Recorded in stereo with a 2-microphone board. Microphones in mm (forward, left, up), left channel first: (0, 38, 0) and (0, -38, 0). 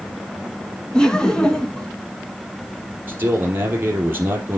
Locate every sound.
0.9 s laughter: 10° left (ahead or behind), 1.3 m
3.1 s a man speaking: 30° right (ahead or behind), 3.5 m